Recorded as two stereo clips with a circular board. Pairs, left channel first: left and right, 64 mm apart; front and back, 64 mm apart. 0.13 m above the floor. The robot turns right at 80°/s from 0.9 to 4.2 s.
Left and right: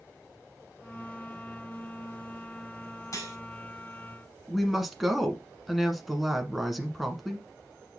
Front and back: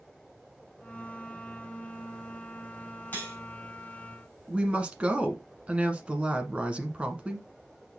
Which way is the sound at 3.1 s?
60° left.